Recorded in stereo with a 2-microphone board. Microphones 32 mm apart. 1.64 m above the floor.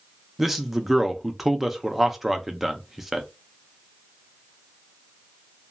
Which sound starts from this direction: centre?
A man speaking, at 0.4 s.